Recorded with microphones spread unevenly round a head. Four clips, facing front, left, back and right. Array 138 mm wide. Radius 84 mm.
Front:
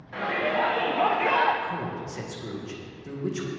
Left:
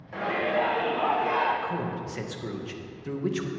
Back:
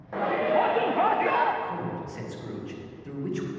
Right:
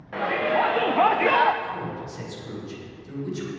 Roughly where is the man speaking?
Left.